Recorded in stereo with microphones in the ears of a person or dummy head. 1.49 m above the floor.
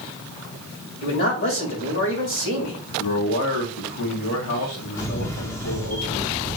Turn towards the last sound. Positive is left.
turn(degrees=15)  # may be behind; listen again after turning